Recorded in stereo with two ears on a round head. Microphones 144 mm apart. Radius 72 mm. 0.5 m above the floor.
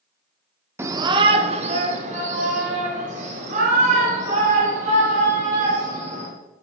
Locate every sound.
0.8 s a shout: 15° right (ahead or behind), 0.6 m; by 6.3 s 50° right (ahead or behind), 4 m